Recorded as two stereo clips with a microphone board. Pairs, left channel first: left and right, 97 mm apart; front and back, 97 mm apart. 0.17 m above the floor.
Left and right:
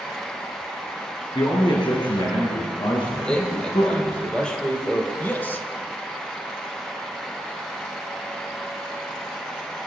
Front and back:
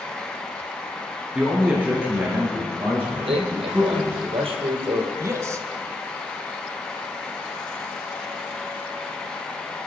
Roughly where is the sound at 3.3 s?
Behind.